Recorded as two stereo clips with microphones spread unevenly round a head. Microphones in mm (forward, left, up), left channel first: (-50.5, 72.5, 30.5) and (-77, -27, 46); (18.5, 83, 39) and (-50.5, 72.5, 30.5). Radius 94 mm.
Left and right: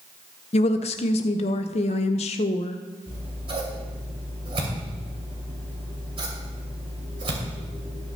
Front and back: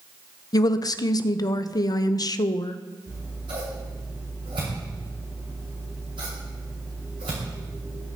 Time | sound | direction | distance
0.5 | a woman speaking | 45° left | 0.6 m
3.1 | scissors | 130° right | 2.5 m